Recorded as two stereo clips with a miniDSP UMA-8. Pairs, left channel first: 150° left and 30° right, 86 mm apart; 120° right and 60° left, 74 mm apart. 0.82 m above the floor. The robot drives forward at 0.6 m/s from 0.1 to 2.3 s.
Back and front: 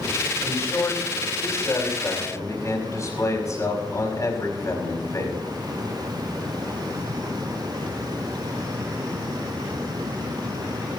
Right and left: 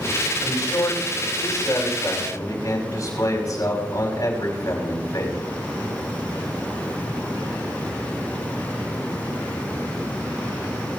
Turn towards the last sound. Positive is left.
turn(degrees=-155)